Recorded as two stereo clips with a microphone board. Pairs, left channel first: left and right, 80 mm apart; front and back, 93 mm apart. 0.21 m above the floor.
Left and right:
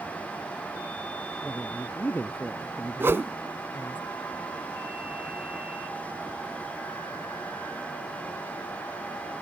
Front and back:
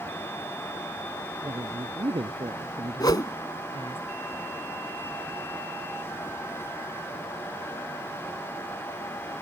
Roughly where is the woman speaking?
Behind left.